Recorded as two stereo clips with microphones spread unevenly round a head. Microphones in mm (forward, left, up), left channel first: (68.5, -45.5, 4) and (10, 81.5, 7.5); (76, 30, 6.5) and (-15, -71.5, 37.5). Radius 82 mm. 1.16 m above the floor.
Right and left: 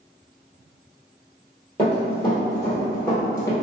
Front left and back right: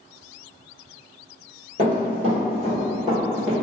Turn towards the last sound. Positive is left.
turn(degrees=-120)